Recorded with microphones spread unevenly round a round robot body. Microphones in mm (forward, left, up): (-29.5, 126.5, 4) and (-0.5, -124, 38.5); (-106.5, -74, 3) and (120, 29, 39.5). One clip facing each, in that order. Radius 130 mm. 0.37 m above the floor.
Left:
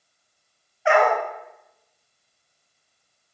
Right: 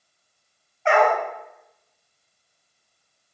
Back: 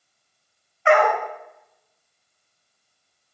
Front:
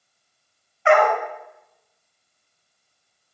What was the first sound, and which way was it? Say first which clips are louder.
A dog barking: even, front 1 dB; 15° left.